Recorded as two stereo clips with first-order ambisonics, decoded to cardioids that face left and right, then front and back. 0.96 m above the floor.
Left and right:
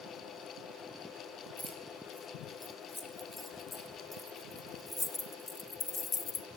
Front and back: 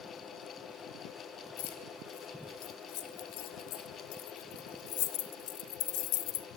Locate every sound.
1.6 s keys jangling: 5° left, 3.5 m; by 6.5 s 25° left, 1.1 m